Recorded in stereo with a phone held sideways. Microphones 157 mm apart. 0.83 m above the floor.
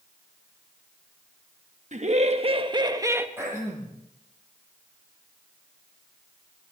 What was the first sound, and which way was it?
Laughter, 55° right (ahead or behind).